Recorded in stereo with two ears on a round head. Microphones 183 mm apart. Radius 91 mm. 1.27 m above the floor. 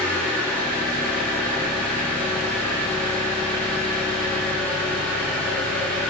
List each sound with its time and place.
0.0 s an engine running: 5° left (ahead or behind), 0.8 m